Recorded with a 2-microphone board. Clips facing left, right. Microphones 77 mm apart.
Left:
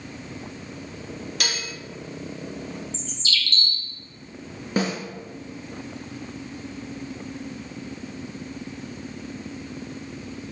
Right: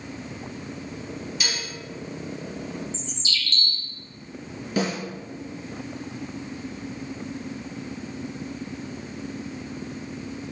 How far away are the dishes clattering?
About 1.2 m.